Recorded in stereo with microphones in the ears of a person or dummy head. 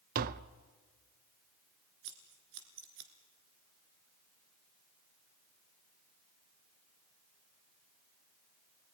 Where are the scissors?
65° right (ahead or behind), 3 m.